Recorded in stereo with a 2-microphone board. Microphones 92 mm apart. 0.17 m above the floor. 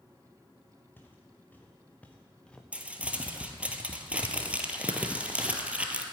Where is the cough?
I don't hear a cough.